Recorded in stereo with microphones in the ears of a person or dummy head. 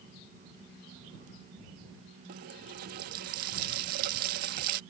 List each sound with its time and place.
2.3 s a running tap: 50° right (ahead or behind)